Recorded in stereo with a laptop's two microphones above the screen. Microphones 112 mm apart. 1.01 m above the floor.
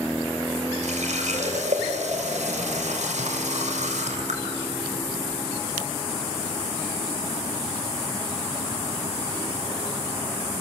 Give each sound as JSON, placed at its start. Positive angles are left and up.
{"t": 0.8, "sound": "a running tap", "side_deg": -90, "distance_m": 3.0}